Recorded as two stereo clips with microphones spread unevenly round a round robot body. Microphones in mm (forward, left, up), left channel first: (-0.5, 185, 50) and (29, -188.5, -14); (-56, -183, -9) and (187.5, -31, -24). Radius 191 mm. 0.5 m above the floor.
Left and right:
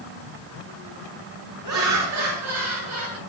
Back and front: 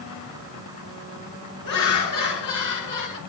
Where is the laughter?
130° right, 7 m; by 3.2 s 140° right, 7 m.